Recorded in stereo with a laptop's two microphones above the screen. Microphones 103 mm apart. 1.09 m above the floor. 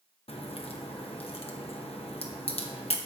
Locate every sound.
0.3 s a crack: 75° left (ahead or behind), 0.9 m